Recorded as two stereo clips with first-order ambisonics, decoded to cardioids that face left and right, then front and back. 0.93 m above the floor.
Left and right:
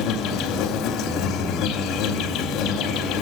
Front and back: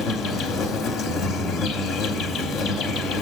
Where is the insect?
50° left, 0.8 m.